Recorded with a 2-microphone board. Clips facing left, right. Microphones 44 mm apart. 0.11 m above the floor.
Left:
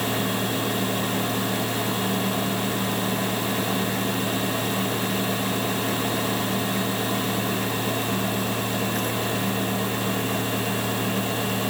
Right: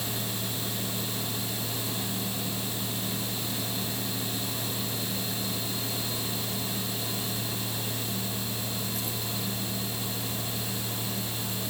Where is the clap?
No clap in this recording.